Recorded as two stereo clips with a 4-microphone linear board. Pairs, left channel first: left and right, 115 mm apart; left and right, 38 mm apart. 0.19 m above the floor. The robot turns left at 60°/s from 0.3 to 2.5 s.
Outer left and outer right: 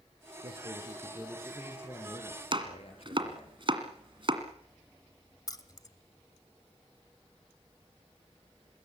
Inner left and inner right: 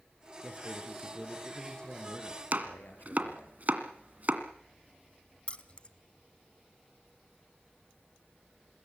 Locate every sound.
0.4 s a man speaking: 120° right, 4 m; by 3.5 s 115° left, 4 m
2.5 s chopping: 45° right (ahead or behind), 1.6 m
5.5 s keys jangling: 30° left (ahead or behind), 1.0 m